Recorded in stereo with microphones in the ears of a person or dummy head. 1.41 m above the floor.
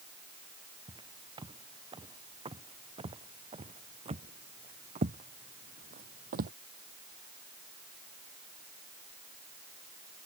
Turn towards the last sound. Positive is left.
turn(degrees=-45)  # may be behind; listen again after turning